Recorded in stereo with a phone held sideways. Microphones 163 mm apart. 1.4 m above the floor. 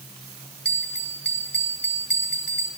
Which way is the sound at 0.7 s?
90° left.